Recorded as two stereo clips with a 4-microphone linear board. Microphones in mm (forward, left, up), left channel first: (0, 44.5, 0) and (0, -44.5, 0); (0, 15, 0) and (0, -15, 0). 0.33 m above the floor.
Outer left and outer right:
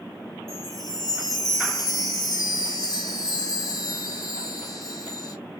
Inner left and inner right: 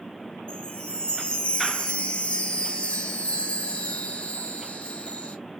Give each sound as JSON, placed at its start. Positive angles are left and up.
{"t": 0.5, "sound": "a chime", "side_deg": 45, "distance_m": 1.1}